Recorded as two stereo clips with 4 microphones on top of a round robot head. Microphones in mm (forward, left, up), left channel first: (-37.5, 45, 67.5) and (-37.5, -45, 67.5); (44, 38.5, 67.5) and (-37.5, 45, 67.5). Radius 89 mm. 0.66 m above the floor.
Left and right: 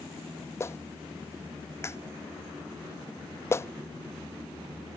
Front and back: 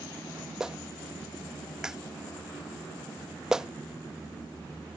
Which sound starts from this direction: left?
A clap, at 0.6 s.